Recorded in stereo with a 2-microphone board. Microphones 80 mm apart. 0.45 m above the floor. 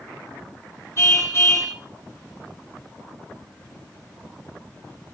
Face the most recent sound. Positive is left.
turn(degrees=40)  # may be behind; listen again after turning